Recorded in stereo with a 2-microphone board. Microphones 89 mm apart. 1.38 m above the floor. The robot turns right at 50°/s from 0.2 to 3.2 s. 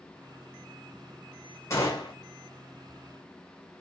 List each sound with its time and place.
1.7 s a gunshot: 35° left (ahead or behind), 1.1 m; by 2.1 s 55° left (ahead or behind), 1.1 m